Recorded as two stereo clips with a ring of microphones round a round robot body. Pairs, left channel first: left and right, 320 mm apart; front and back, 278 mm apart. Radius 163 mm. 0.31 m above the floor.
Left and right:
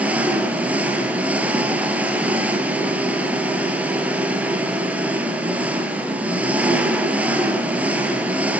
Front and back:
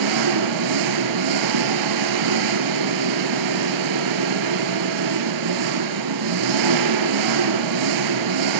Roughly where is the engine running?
Behind.